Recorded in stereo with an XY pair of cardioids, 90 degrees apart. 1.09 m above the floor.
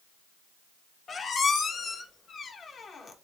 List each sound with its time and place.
1.1 s a squeak: 50° left, 0.6 m